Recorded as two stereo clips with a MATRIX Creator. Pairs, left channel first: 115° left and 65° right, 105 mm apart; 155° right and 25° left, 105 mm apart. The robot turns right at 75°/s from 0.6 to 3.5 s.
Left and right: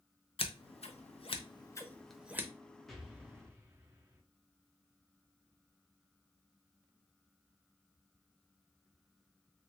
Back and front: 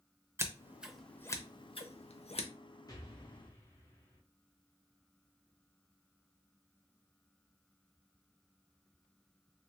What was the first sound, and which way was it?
Scissors, 85° left.